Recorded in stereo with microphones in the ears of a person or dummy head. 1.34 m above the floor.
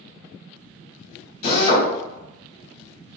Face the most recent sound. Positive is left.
turn(degrees=60)  # may be behind; listen again after turning